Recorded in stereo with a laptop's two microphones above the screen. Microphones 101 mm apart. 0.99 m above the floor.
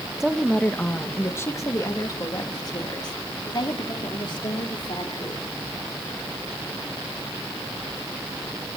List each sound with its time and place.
0.2 s a woman speaking: 5° right (ahead or behind), 0.9 m; by 5.4 s 55° left (ahead or behind), 3.5 m